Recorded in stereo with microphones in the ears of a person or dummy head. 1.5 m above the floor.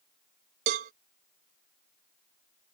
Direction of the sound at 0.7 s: 40° right (ahead or behind).